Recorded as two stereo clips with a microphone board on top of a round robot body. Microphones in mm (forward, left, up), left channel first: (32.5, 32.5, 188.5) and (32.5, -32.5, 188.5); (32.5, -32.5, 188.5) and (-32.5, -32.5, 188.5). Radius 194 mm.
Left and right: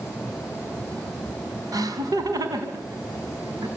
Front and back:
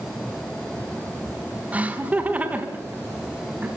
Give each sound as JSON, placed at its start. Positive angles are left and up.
{"t": 1.7, "sound": "laughter", "azimuth_deg": -110, "distance_m": 3.5}